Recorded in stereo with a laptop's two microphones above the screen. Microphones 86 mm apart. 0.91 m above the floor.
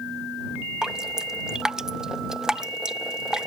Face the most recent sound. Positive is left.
turn(degrees=-5)  # may be behind; listen again after turning